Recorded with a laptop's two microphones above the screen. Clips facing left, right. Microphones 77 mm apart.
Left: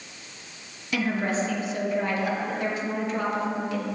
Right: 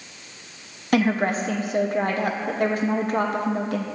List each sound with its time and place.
0.9 s a woman speaking: 55° right (ahead or behind), 1.2 m